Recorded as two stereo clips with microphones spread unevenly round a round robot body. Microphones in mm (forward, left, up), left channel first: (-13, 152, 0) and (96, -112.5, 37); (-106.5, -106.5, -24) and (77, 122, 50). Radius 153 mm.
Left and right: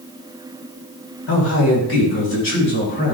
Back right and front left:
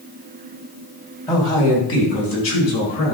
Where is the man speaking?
155° left, 3 m; by 3.1 s 165° left, 5.5 m.